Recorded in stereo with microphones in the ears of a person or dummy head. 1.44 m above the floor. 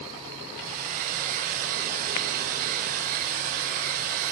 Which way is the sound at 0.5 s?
50° right (ahead or behind).